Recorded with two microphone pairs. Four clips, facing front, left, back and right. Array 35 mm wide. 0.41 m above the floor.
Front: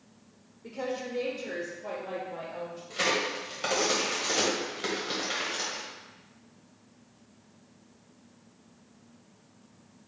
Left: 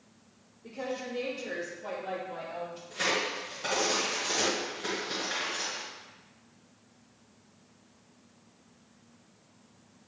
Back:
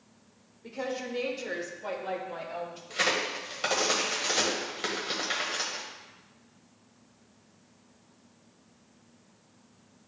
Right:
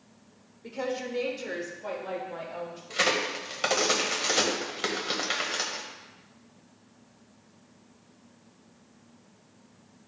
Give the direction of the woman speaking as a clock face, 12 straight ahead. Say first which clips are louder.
Right 4 dB, even; 3 o'clock.